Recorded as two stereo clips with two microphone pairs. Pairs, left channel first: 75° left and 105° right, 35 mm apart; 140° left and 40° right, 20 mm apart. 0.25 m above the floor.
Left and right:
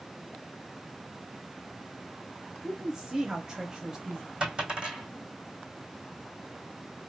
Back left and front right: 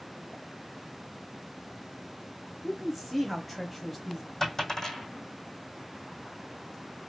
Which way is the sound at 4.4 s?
160° right.